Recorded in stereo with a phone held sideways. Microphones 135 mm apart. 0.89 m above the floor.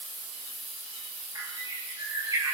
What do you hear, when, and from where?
1.4 s a bird: 25° right (ahead or behind), 6.5 m